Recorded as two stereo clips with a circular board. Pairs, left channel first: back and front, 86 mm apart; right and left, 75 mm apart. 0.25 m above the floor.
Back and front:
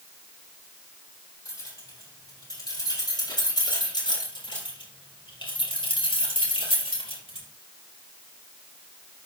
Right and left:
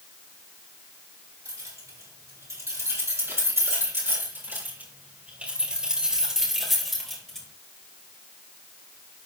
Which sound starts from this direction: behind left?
Keys jangling, at 1.4 s.